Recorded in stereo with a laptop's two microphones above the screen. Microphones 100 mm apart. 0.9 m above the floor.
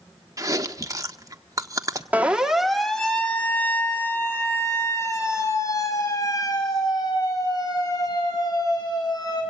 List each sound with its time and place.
0.4 s chewing: 35° right (ahead or behind), 1.6 m
2.1 s a siren: 15° right (ahead or behind), 2 m; by 9.4 s 40° left (ahead or behind), 10 m